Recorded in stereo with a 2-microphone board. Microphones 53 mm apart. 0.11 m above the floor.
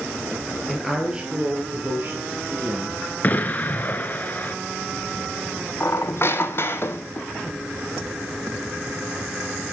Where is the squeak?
50° left (ahead or behind), 0.7 m.